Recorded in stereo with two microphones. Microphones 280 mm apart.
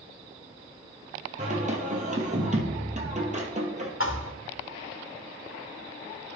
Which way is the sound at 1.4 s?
25° right (ahead or behind).